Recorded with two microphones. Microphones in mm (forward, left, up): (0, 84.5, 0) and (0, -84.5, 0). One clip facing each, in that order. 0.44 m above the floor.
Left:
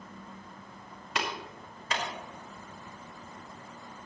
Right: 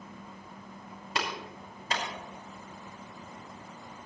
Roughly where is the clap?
Right.